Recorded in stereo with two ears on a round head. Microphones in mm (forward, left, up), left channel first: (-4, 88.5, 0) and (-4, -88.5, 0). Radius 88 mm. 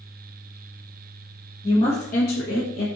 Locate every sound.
1.6 s a woman speaking: 20° left (ahead or behind), 0.9 m; by 2.9 s 60° left (ahead or behind), 1.2 m